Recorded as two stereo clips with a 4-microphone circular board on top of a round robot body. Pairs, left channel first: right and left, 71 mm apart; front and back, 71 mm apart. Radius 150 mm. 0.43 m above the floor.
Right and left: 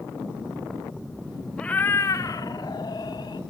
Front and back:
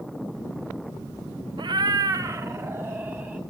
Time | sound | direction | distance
1.6 | a cat meowing | 170° right | 0.6 m